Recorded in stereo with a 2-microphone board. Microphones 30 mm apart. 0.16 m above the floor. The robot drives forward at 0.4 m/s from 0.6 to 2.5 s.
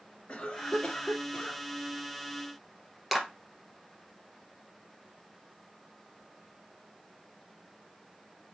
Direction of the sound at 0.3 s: 50° left (ahead or behind).